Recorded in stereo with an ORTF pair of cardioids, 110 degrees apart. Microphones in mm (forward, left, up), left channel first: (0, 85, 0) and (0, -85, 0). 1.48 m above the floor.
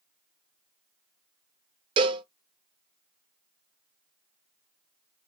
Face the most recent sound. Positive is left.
turn(degrees=-30)